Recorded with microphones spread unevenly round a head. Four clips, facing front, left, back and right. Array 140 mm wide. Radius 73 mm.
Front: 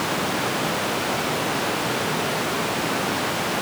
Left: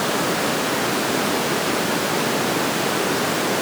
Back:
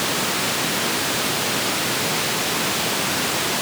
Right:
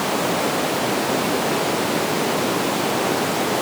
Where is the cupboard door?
No cupboard door in this recording.